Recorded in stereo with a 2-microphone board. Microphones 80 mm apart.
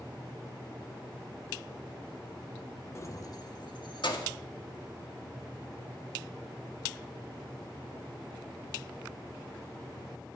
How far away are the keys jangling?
About 1.0 m.